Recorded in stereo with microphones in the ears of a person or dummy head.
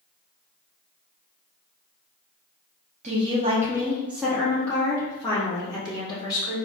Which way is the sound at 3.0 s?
30° right (ahead or behind).